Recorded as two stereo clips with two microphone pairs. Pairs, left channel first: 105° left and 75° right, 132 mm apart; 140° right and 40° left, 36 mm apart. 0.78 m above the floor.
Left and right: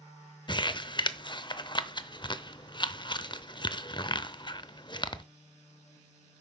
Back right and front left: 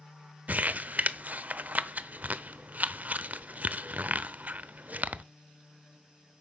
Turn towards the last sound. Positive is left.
turn(degrees=60)